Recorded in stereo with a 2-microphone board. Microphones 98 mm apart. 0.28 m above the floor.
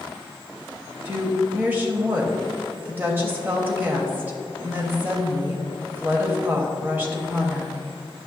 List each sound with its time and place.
1.1 s a woman speaking: 20° right (ahead or behind), 1.0 m